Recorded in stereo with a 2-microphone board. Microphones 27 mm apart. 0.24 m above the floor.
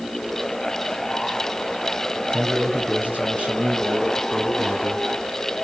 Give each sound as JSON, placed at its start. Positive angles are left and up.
{"t": 2.3, "sound": "a man speaking", "side_deg": -70, "distance_m": 5.5}